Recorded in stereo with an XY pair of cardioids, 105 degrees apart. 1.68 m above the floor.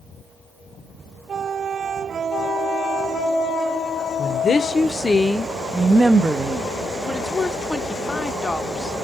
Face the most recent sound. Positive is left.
turn(degrees=10)